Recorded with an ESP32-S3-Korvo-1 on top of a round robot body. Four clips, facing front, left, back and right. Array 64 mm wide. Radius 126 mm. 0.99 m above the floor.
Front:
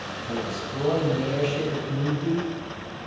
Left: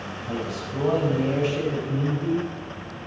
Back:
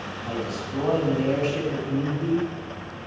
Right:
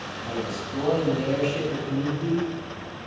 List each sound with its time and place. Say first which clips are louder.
0.2 s a man speaking: even, even; 140° right, 6.5 m